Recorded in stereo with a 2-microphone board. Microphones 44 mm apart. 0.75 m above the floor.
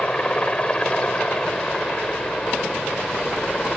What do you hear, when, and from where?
0.0 s a helicopter: 25° left (ahead or behind); by 3.8 s 20° left (ahead or behind)